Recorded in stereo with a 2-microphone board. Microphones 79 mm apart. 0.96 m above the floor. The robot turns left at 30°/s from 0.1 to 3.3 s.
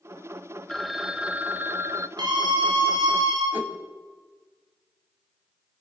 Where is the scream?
65° right, 5 m; by 3.4 s 100° right, 5 m.